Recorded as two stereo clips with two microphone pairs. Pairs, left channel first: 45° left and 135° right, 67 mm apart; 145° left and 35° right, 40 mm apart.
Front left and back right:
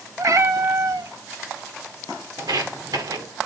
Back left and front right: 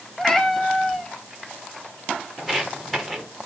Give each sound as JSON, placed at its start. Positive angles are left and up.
{"t": 0.2, "sound": "a cat meowing", "azimuth_deg": -135, "distance_m": 0.7}
{"t": 2.4, "sound": "footsteps", "azimuth_deg": -130, "distance_m": 1.7}